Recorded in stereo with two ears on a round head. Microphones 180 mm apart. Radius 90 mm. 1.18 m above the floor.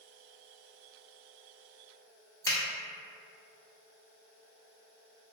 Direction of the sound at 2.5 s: 15° left (ahead or behind).